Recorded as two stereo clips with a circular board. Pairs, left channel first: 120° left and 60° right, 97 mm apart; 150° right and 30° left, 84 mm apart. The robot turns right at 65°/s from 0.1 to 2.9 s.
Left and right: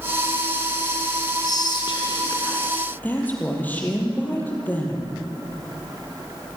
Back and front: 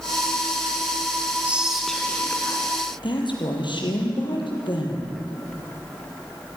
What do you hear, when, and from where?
1.4 s whispering: 95° left, 1.5 m; by 2.7 s straight behind, 1.5 m
3.0 s a woman speaking: 170° right, 4 m